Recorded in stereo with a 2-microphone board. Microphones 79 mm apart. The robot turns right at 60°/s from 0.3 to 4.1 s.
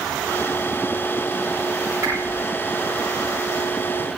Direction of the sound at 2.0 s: 35° right (ahead or behind).